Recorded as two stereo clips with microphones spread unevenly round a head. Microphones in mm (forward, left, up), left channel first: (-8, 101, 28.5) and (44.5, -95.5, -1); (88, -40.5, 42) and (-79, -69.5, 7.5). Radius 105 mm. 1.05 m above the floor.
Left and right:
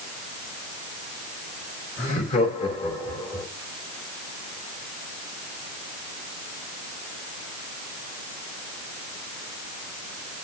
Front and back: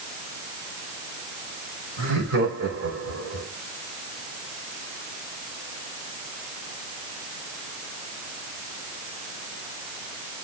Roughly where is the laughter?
Behind.